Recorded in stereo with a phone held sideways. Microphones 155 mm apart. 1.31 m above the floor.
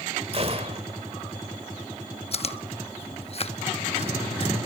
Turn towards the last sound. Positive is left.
turn(degrees=45)  # may be behind; listen again after turning